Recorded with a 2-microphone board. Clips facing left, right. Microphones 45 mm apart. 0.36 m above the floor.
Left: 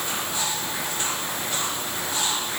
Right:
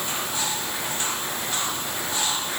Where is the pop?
I don't hear a pop.